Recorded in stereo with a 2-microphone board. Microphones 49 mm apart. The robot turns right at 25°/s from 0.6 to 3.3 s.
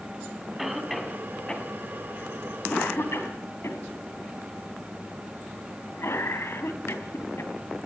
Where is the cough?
Centre (ahead or behind), 4.5 m; by 7.5 s 60° left (ahead or behind), 4.5 m.